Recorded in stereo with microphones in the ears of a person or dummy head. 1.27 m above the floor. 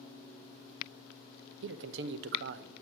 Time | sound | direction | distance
1.6 | a man speaking | 60° right (ahead or behind) | 0.7 m